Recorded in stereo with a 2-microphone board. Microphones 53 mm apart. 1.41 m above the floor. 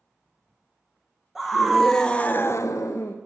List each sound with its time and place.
1.4 s a scream: 5° right (ahead or behind), 1.4 m; by 3.2 s 65° left (ahead or behind), 0.8 m